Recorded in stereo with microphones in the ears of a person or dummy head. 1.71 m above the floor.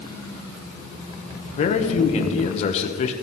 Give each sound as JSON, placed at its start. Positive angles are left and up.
{"t": 1.6, "sound": "a man speaking", "side_deg": 40, "distance_m": 0.9}